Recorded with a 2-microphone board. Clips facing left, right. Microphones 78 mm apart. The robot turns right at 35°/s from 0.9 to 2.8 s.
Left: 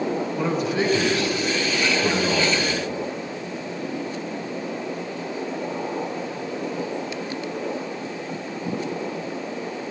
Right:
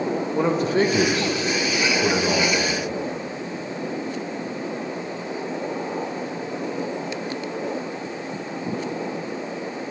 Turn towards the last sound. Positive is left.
turn(degrees=-5)